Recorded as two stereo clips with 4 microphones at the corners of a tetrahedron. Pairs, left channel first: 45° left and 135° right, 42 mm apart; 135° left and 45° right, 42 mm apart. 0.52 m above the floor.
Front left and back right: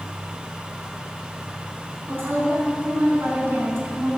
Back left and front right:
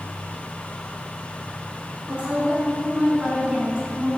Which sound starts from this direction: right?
A woman speaking, at 2.1 s.